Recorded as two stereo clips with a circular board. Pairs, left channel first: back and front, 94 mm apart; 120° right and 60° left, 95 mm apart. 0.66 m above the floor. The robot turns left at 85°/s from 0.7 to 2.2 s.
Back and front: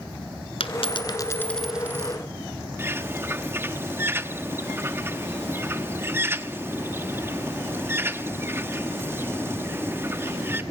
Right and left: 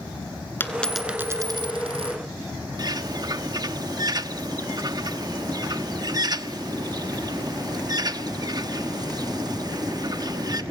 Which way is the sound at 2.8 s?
55° left.